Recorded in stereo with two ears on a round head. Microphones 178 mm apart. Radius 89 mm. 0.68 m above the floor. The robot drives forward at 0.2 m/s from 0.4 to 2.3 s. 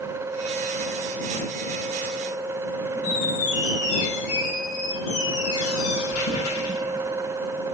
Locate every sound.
3.0 s a squeak: 80° left, 2.5 m